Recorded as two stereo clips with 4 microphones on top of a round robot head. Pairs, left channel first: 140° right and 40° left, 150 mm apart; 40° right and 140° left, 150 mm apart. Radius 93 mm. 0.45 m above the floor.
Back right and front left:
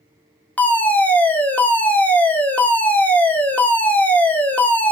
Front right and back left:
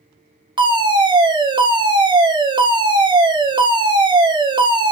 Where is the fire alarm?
150° left, 2.5 m.